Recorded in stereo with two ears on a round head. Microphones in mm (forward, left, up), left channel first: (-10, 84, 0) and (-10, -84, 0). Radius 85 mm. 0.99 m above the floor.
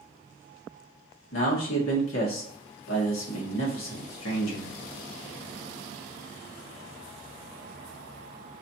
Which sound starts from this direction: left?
A man speaking, at 1.3 s.